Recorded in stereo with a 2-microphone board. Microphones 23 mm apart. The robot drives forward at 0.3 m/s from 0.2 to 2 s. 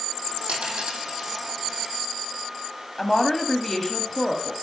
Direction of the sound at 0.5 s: 80° right.